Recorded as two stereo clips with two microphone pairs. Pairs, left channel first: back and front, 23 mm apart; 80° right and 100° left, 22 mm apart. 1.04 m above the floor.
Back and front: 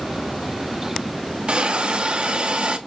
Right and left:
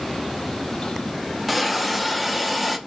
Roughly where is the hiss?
Ahead.